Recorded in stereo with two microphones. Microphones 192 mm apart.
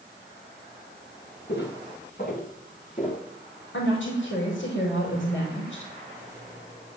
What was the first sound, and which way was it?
Footsteps, 60° left (ahead or behind).